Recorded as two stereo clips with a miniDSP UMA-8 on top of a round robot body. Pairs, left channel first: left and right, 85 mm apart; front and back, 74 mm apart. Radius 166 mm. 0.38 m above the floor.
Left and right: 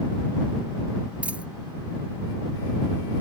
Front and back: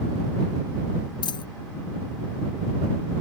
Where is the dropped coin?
15° right.